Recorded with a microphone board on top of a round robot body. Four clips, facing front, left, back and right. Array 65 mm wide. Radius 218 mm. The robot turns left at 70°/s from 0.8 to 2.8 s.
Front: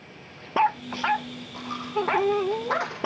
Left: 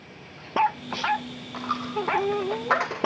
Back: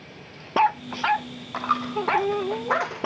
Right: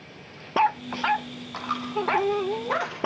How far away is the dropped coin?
About 0.8 m.